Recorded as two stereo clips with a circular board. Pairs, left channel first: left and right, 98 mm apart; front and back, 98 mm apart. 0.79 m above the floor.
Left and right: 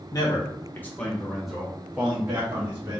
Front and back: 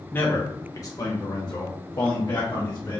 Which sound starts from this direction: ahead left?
A man speaking, at 0.1 s.